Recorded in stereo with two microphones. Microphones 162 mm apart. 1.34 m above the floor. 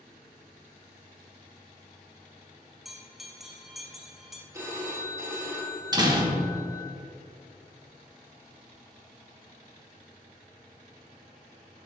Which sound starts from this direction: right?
A door slam, at 5.9 s.